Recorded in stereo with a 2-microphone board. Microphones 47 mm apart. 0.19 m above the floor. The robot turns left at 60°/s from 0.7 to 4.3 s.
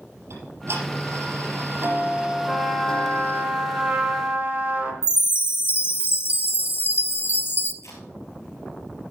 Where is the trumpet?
15° left, 2.5 m; by 4.9 s 95° right, 2.5 m.